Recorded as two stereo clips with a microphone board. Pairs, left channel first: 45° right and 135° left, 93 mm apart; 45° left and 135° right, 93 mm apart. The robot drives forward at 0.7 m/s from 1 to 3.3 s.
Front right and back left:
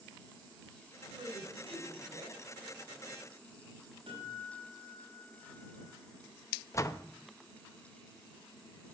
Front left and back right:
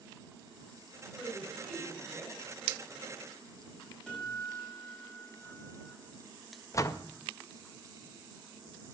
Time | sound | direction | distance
1.2 | a woman speaking | 120° left | 4 m
4.1 | a guitar | 130° left | 5 m
6.7 | a door slam | straight ahead | 0.5 m